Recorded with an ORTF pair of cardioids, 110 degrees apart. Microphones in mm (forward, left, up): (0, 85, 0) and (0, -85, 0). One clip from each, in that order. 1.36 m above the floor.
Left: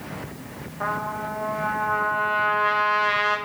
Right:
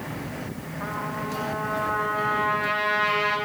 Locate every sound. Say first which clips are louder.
0.8 s a trumpet: left 4 dB; 35° left, 3 m